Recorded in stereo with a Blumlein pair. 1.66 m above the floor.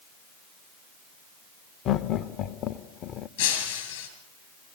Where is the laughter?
30° left, 0.9 m.